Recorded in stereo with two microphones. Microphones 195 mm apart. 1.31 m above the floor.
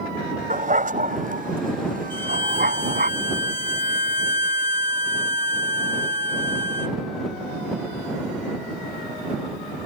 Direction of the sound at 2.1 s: 50° left (ahead or behind).